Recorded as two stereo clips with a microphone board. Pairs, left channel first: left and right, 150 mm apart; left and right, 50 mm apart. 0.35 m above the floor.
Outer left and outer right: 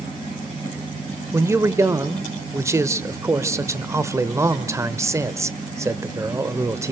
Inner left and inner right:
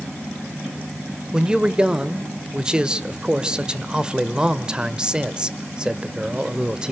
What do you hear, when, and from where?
1.3 s a man speaking: 20° right (ahead or behind), 0.9 m